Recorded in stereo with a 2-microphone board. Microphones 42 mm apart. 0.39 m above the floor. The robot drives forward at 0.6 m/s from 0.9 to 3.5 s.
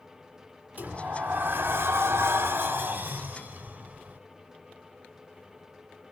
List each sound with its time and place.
0.8 s a sliding door: 40° right (ahead or behind), 1.0 m